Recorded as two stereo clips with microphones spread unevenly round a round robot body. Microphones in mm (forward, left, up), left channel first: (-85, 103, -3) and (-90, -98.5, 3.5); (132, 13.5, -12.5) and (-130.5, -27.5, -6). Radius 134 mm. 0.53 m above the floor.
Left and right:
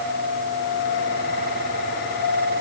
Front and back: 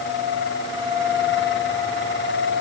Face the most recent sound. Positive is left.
No sound to turn to.